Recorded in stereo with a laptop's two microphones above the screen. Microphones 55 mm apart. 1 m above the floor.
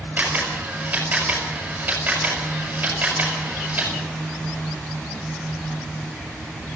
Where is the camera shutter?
30° right (ahead or behind), 6.5 m.